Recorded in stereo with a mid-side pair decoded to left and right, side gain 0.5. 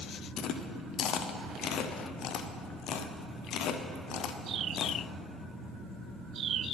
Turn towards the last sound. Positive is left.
turn(degrees=65)